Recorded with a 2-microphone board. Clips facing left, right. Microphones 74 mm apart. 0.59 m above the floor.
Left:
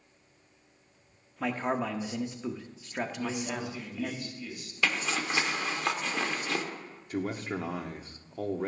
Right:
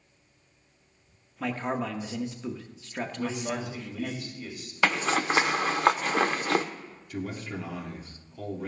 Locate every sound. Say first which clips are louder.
1.4 s a man speaking: even; 10° left (ahead or behind), 0.9 m
3.2 s a man speaking: right 2 dB; 60° right (ahead or behind), 3 m
4.8 s a zipper: right 5 dB; 50° right (ahead or behind), 0.6 m
7.1 s a man speaking: left 2 dB; 40° left (ahead or behind), 1.2 m